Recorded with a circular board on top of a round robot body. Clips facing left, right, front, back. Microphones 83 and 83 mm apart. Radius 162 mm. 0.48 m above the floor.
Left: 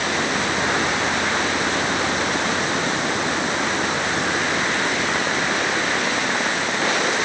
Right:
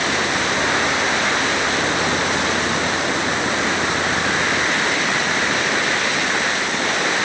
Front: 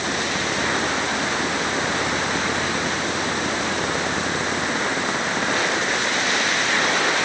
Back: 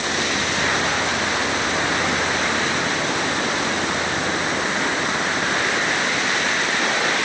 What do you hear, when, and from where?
Only background noise.